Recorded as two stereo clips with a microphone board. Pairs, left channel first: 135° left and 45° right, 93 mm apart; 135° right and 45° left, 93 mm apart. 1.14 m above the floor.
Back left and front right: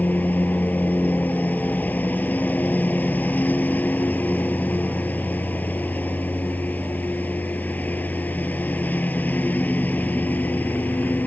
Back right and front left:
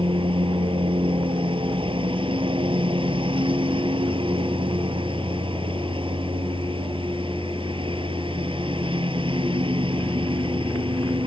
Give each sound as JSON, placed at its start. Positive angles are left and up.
{"t": 0.0, "sound": "a lawn mower", "azimuth_deg": 65}